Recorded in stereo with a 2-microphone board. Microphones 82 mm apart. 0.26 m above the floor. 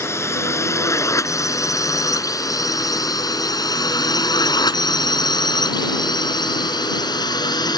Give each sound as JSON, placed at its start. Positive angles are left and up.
{"t": 0.0, "sound": "a drone", "side_deg": 35}